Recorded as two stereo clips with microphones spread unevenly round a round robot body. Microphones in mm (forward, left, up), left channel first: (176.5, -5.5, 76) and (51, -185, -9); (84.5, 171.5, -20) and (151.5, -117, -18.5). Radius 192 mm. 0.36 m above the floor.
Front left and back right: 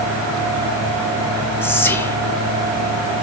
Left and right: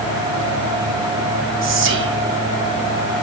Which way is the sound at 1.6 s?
40° right.